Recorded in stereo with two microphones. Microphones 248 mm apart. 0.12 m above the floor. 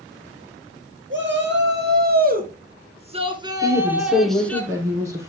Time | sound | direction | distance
1.1 | a shout | 50° right (ahead or behind) | 2.5 m
3.6 | a woman speaking | 10° right (ahead or behind) | 3.5 m